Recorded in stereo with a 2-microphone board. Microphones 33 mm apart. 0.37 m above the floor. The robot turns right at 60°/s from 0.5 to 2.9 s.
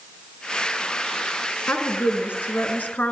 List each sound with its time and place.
1.7 s a woman speaking: 55° left, 5 m; by 3.1 s 125° left, 5 m